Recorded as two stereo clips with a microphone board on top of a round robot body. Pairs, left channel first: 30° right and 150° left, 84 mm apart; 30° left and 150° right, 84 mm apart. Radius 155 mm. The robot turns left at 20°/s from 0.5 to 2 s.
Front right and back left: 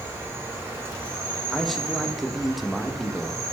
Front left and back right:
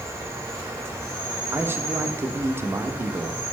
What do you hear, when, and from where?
0.0 s an insect: 170° right, 1.4 m; by 3.5 s 160° left, 1.4 m
1.5 s a man speaking: 115° right, 0.6 m; by 3.4 s 125° right, 0.6 m